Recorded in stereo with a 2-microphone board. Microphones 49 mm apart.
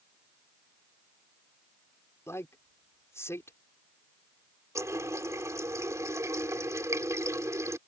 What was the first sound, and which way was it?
A man speaking, 60° left (ahead or behind).